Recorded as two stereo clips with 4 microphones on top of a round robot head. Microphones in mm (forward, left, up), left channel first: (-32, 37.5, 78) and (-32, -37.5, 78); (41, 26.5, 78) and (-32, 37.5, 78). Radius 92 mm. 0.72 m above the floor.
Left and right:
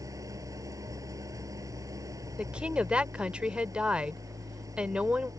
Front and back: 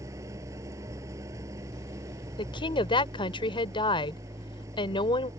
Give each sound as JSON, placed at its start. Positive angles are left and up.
{"t": 0.0, "sound": "an engine running", "azimuth_deg": -135}
{"t": 2.4, "sound": "a woman speaking", "azimuth_deg": -10}